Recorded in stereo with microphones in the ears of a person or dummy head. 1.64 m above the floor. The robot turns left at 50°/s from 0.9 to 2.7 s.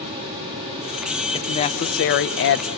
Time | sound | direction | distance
1.3 | a woman speaking | 155° left | 0.9 m